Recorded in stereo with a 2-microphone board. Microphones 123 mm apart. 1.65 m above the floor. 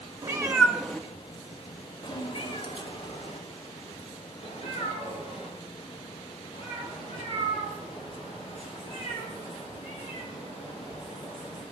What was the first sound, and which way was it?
A cat meowing, 25° right (ahead or behind).